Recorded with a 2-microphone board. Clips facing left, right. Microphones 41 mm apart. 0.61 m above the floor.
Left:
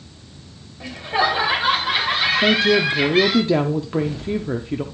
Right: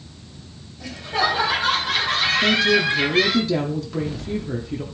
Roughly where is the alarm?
No alarm in this recording.